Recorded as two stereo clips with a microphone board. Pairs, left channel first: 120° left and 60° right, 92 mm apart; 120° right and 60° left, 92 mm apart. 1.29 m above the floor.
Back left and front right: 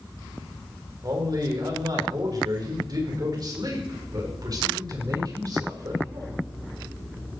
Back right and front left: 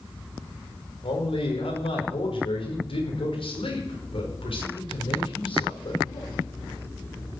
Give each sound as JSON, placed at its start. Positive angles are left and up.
{"t": 1.0, "sound": "a man speaking", "azimuth_deg": -105, "distance_m": 5.5}